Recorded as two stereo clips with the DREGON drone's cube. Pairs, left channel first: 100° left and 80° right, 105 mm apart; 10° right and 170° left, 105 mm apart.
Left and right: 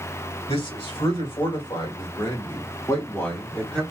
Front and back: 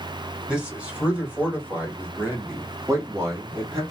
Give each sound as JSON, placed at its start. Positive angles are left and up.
{"t": 0.5, "sound": "a man speaking", "azimuth_deg": 90, "distance_m": 1.9}